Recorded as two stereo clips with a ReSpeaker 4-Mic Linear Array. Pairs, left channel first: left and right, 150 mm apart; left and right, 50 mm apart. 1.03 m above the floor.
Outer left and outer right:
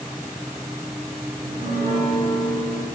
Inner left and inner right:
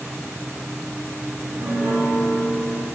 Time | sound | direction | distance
1.4 | a piano | 45° right (ahead or behind) | 6.5 m